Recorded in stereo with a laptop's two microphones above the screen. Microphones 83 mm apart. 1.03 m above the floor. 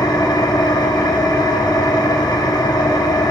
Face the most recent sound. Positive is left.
turn(degrees=55)  # may be behind; listen again after turning